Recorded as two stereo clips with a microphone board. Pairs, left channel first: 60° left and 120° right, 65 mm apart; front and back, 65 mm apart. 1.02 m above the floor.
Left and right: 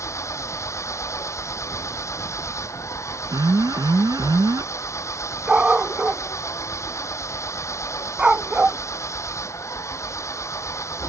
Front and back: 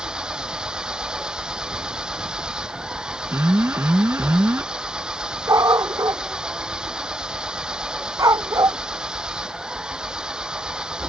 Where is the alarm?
130° right.